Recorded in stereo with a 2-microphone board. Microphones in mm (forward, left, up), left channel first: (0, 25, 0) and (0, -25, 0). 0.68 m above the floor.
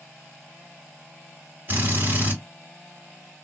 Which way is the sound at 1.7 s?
35° right (ahead or behind).